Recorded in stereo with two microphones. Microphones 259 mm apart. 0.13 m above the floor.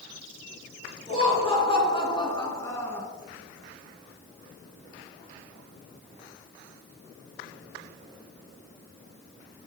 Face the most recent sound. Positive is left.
turn(degrees=5)  # may be behind; listen again after turning